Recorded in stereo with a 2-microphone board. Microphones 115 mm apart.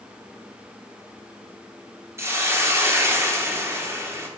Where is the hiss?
25° right (ahead or behind), 0.9 m.